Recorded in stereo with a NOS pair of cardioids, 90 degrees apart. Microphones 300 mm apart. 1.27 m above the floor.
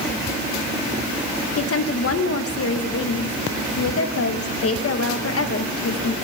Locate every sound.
1.6 s a woman speaking: 50° left, 1.4 m